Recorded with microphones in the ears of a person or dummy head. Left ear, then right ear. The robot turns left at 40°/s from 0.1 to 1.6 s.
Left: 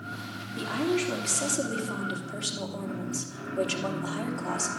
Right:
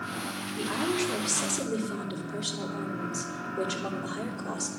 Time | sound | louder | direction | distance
0.6 | a woman speaking | left 1 dB | 160° left | 3 m